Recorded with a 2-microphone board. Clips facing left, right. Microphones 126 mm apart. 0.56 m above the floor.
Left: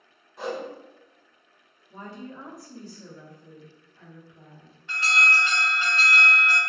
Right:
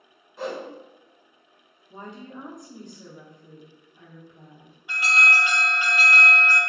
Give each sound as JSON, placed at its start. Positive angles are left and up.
{"t": 0.4, "sound": "a whoosh", "side_deg": 0, "distance_m": 0.9}
{"t": 1.9, "sound": "a woman speaking", "side_deg": -20, "distance_m": 0.8}
{"t": 4.9, "sound": "an alarm", "side_deg": -10, "distance_m": 0.8}